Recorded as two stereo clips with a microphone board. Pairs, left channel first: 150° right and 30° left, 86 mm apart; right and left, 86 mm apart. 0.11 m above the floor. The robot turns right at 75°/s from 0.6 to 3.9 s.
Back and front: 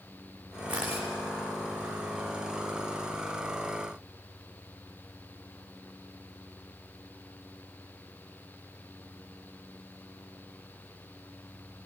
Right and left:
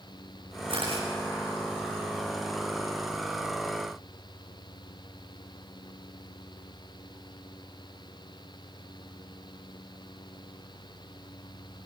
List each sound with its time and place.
0.7 s a camera shutter: 100° left, 8 m; by 1.1 s 130° left, 8 m